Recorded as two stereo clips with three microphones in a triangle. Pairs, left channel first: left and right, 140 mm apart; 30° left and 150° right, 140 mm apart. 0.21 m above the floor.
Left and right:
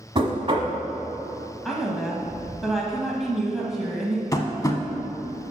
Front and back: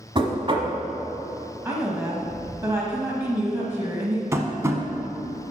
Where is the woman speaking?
Straight behind, 1.1 m.